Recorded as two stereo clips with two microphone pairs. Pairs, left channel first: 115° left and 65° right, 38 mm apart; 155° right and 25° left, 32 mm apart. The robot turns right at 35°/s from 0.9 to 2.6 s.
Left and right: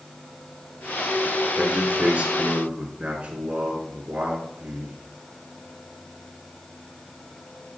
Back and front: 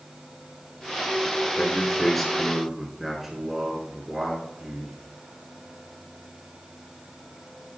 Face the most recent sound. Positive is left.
turn(degrees=-45)